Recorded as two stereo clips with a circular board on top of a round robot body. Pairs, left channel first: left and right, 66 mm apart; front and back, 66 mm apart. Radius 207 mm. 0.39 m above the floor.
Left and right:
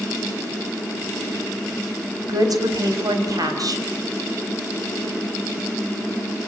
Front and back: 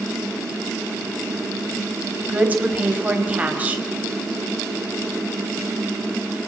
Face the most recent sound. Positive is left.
turn(degrees=-115)